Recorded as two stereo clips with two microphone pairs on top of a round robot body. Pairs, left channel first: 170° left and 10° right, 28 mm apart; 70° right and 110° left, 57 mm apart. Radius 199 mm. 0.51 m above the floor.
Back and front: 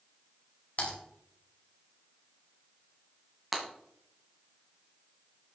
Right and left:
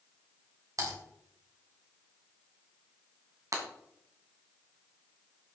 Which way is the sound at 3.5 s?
80° left.